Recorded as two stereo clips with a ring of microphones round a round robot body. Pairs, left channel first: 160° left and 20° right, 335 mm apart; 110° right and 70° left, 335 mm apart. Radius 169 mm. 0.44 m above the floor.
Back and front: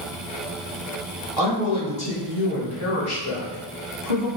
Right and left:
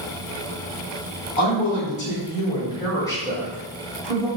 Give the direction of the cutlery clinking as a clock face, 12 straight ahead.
No cutlery clinking in this recording.